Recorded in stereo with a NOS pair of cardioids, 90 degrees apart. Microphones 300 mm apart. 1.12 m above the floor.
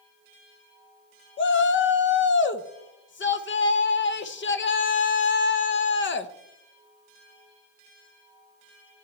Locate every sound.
1.4 s a shout: 40° left, 0.9 m